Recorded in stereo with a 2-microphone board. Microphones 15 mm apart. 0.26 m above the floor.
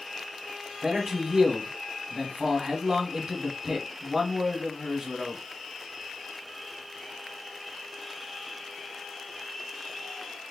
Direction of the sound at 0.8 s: 40° right (ahead or behind).